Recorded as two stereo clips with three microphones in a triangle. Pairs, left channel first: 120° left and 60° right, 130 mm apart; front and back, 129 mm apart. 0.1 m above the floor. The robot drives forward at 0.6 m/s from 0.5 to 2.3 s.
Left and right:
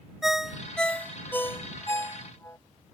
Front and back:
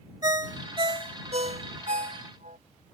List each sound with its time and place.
0.2 s a ringtone: 145° right; by 2.6 s 170° right